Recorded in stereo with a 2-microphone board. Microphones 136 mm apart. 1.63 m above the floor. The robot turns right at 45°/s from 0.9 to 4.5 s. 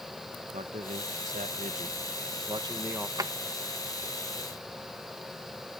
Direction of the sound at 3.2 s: 30° right (ahead or behind).